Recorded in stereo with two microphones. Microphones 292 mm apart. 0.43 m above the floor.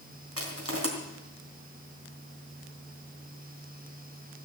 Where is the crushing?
60° right (ahead or behind), 3 m.